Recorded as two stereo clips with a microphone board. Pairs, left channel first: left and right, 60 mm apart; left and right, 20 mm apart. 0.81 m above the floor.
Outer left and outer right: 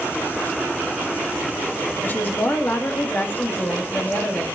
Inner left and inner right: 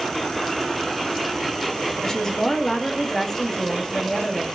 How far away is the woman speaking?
About 1.6 m.